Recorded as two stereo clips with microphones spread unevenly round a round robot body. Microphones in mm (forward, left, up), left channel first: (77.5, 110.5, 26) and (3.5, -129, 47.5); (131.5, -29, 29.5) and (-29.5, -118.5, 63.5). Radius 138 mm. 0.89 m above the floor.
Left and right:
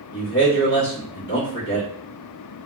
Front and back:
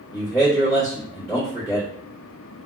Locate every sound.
0.1 s a man speaking: 105° left, 1.3 m